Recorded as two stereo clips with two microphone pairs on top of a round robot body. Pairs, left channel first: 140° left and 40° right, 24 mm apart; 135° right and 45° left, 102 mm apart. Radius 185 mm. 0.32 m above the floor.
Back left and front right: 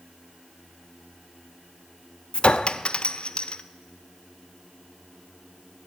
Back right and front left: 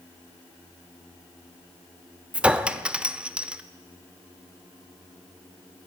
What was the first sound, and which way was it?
A clink, 130° left.